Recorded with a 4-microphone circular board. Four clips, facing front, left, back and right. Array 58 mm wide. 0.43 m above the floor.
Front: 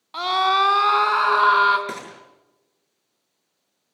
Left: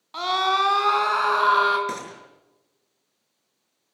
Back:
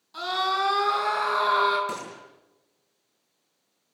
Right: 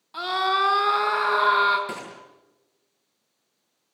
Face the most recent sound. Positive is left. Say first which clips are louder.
# left 3 dB, front 1 dB
turn(degrees=25)